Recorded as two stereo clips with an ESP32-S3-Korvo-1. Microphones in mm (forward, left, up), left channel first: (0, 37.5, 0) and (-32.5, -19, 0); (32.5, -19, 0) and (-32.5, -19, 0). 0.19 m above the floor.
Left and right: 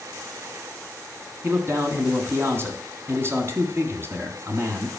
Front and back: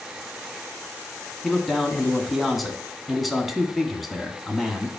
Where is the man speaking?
90° right, 1.8 m.